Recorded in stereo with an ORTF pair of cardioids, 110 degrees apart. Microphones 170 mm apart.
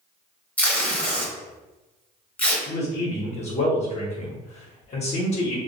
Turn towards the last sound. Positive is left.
turn(degrees=40)